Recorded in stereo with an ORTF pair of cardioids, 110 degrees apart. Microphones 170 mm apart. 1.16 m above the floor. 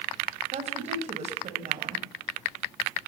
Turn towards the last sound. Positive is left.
turn(degrees=-40)